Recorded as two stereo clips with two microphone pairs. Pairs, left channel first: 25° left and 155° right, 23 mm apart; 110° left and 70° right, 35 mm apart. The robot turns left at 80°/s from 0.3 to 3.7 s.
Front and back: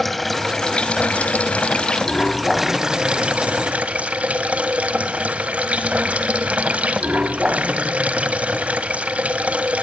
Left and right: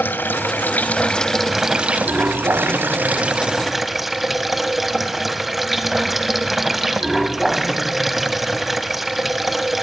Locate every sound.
0.0 s running water: 115° left, 1.5 m; by 9.8 s 155° right, 1.5 m